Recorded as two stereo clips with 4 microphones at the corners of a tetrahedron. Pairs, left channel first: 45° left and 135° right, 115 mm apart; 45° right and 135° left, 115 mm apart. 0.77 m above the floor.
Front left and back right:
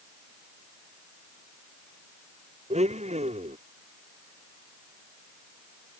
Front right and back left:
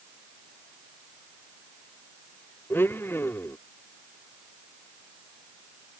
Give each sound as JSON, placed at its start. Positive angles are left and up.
{"t": 2.7, "sound": "a blender", "azimuth_deg": -115}